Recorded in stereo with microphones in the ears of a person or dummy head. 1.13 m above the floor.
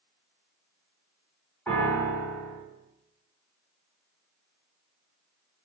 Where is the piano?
10° left (ahead or behind), 1.6 m.